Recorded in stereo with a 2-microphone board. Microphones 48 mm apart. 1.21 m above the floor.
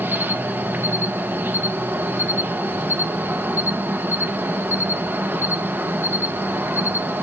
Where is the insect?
50° right (ahead or behind), 1.3 m.